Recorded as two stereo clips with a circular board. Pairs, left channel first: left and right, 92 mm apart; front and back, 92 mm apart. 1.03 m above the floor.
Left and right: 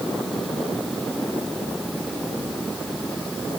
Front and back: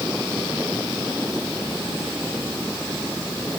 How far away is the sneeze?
I don't hear a sneeze.